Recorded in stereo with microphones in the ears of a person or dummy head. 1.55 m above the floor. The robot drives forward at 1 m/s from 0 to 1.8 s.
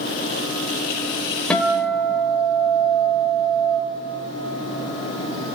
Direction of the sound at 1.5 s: 10° left (ahead or behind).